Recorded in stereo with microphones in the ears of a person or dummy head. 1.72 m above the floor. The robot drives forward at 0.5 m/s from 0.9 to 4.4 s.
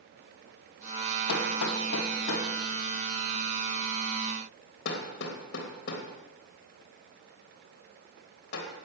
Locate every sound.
1.3 s hammering: 80° left, 2.5 m; by 8.7 s 65° left (ahead or behind), 3 m